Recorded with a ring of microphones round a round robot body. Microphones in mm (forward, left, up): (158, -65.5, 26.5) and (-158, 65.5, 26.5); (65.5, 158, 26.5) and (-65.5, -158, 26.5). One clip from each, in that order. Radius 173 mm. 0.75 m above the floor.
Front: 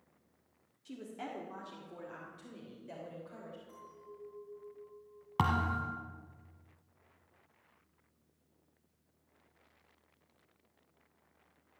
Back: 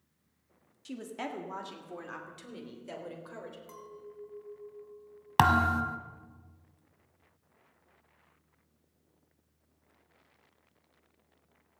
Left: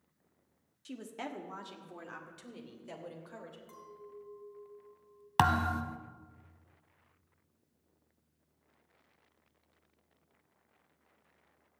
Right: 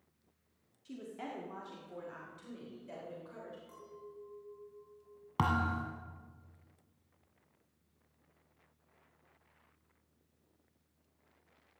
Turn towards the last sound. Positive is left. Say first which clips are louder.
# back 8 dB, left 5 dB
turn(degrees=110)